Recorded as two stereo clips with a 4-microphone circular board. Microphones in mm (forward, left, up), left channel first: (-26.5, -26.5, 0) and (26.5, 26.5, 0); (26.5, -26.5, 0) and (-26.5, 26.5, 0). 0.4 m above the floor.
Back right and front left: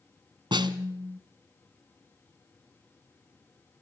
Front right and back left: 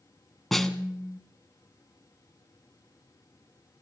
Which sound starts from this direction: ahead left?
A snare drum, at 0.5 s.